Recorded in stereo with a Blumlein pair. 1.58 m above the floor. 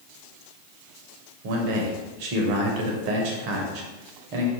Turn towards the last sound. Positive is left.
turn(degrees=-45)